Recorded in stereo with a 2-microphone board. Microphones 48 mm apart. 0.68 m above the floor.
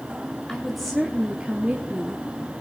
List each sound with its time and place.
0.5 s a woman speaking: 10° left (ahead or behind), 1.4 m; by 2.2 s 35° right (ahead or behind), 1.4 m